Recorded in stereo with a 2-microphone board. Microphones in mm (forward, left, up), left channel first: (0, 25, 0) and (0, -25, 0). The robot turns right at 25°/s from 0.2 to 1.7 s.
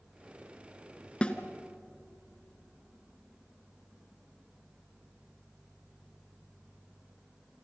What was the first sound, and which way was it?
A snare drum, 20° left (ahead or behind).